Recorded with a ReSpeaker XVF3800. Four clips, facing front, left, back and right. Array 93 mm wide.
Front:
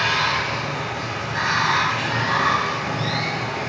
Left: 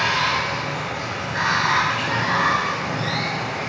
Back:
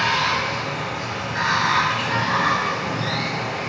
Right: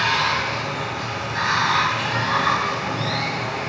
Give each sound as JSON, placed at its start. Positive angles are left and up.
{"t": 0.0, "sound": "running water", "azimuth_deg": 75, "distance_m": 1.4}